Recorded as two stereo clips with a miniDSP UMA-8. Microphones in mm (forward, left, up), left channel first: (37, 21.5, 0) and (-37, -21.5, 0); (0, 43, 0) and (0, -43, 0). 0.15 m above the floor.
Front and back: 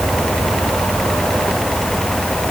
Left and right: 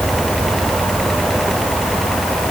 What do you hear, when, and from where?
Only background noise.